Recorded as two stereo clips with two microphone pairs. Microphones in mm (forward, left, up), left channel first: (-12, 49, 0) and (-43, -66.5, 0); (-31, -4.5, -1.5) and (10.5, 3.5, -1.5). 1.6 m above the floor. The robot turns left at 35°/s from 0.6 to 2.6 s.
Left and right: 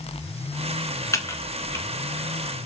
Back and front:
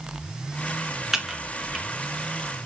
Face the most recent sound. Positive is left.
turn(degrees=15)